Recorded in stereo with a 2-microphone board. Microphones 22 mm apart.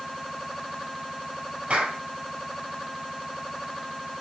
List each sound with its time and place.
1.7 s a clap: 75° right (ahead or behind), 4.5 m